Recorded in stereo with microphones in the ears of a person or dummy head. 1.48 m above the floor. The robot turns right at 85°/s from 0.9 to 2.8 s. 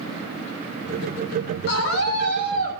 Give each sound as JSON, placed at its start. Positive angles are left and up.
{"t": 1.7, "sound": "a scream", "azimuth_deg": 65, "distance_m": 6.0}